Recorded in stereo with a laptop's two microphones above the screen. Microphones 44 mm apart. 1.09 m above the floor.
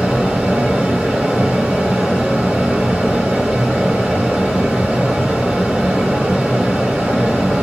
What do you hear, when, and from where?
0.0 s a fan: 15° right (ahead or behind), 1.7 m